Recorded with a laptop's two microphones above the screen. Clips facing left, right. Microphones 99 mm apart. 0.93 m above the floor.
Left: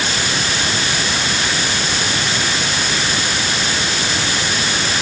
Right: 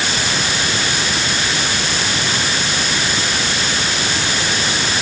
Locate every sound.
Only background noise.